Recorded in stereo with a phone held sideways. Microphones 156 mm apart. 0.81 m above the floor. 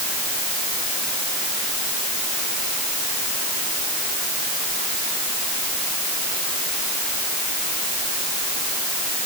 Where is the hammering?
I don't hear hammering.